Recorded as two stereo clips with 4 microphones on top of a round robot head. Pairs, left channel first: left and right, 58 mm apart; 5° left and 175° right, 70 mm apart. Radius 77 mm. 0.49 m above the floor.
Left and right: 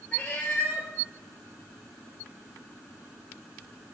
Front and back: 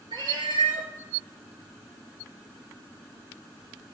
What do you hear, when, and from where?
0.1 s a cat meowing: 165° left, 1.7 m